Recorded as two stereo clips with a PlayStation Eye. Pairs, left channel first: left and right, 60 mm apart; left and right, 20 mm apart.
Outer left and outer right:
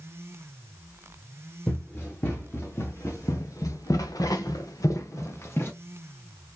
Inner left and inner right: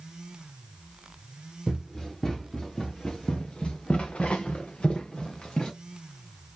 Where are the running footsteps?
35° left (ahead or behind), 2.5 m; by 5.7 s 40° left (ahead or behind), 1.5 m.